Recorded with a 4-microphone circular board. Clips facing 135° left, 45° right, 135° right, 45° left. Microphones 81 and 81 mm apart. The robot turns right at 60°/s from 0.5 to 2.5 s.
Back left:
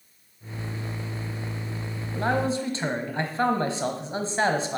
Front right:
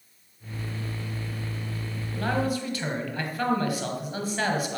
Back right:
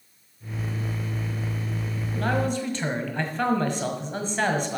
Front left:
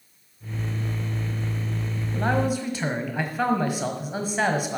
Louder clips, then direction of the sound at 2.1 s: Back left 2 dB, front left 2 dB; 100° left.